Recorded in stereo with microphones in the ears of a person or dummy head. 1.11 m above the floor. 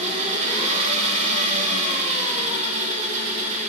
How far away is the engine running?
About 1.6 m.